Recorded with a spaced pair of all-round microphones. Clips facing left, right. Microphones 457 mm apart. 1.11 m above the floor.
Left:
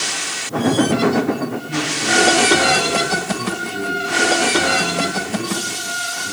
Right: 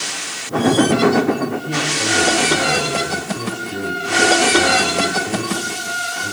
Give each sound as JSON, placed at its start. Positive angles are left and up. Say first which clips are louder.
{"t": 1.5, "sound": "a man speaking", "louder": "right 1 dB", "side_deg": -85, "distance_m": 4.0}